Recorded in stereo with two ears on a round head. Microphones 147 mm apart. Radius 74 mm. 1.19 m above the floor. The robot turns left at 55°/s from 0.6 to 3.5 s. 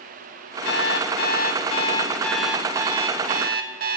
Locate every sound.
0.7 s an alarm clock: 95° left, 1.4 m; by 4.0 s 60° right, 1.4 m